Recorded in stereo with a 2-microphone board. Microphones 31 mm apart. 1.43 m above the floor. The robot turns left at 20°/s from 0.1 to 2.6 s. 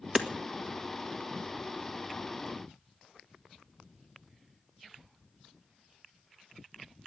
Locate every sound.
0.1 s hammering: 20° right (ahead or behind), 1.5 m; by 0.3 s 15° right (ahead or behind), 1.5 m